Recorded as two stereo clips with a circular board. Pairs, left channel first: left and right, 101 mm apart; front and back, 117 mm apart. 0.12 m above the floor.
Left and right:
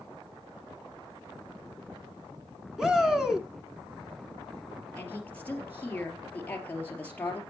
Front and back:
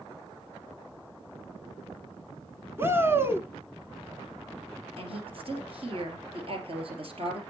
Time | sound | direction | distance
2.8 | a shout | 165° right | 1.1 m
5.0 | a woman speaking | 160° left | 3 m